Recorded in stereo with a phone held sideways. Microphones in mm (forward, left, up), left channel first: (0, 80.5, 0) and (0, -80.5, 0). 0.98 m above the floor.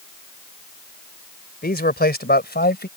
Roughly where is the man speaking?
Left.